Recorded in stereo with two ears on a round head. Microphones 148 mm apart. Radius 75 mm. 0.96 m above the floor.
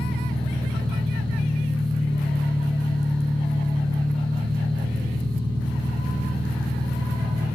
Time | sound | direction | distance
0.0 | an engine running | 30° left (ahead or behind) | 3.5 m